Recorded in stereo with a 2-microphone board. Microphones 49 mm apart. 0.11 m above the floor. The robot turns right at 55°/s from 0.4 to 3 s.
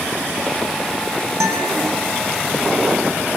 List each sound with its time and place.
1.4 s a guitar: 80° right, 5 m; by 1.8 s 70° right (ahead or behind), 5 m